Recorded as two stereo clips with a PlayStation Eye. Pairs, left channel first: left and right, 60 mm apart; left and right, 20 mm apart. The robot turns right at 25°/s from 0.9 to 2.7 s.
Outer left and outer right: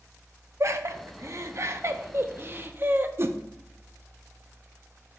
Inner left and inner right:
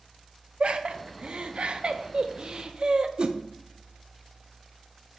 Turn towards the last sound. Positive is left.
turn(degrees=-40)  # may be behind; listen again after turning